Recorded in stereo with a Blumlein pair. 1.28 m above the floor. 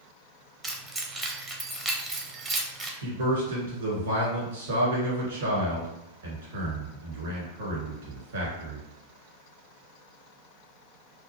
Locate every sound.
0.6 s keys jangling: 15° right, 0.6 m
3.0 s a man speaking: 60° right, 1.4 m